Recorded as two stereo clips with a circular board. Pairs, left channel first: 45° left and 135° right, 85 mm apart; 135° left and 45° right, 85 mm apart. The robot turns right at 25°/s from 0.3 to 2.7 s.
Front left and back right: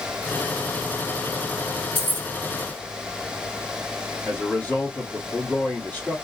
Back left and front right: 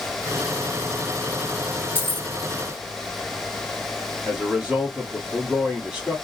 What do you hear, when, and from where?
1.9 s keys jangling: straight behind, 1.2 m; by 2.3 s 175° right, 1.2 m
4.2 s a man speaking: 20° left, 1.3 m